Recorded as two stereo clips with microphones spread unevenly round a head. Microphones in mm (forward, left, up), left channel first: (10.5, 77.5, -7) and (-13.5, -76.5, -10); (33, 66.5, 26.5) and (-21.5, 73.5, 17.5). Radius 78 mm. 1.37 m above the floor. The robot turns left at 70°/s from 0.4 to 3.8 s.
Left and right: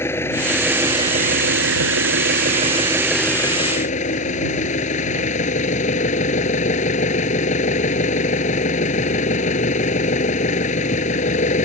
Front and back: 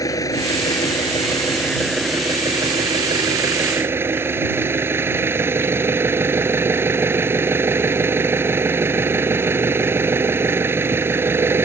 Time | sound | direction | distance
0.0 | an engine running | 5° left | ?